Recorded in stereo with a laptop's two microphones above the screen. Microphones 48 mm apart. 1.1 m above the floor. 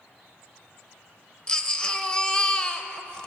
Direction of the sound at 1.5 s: 20° left (ahead or behind).